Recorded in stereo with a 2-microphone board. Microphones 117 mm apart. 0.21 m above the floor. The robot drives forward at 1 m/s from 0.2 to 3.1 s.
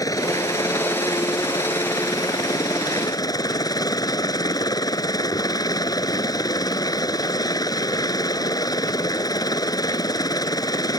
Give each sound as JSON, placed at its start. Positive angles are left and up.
{"t": 0.0, "sound": "a helicopter", "side_deg": 30}